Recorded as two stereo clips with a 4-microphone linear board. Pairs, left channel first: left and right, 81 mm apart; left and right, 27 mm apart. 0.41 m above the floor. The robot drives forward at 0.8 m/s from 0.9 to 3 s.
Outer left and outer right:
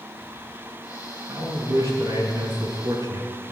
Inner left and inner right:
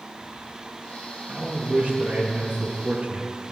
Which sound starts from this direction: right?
A man speaking, at 1.3 s.